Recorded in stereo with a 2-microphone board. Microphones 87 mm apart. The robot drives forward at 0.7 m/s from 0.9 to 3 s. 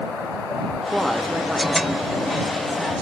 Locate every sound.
0.9 s a woman speaking: centre (ahead or behind), 0.6 m